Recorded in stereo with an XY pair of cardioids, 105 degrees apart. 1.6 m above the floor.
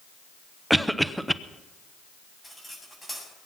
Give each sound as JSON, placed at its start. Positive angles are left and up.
{"t": 0.7, "sound": "a cough", "azimuth_deg": -5, "distance_m": 0.8}
{"t": 2.4, "sound": "cutlery clinking", "azimuth_deg": 10, "distance_m": 8.0}